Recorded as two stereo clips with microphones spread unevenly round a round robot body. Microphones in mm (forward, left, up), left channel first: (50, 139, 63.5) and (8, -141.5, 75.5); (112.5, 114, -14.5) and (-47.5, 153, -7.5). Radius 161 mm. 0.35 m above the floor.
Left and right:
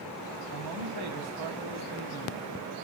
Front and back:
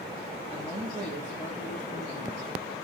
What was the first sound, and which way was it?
A man speaking, 130° right.